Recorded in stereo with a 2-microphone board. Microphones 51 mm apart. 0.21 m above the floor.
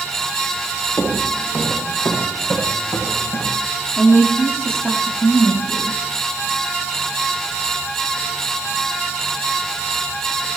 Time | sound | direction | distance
1.0 | footsteps | 75° left (ahead or behind) | 7.5 m
4.0 | a woman speaking | 20° left (ahead or behind) | 6.5 m